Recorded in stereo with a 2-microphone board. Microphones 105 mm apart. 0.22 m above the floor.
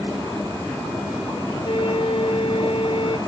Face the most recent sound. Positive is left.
turn(degrees=55)  # may be behind; listen again after turning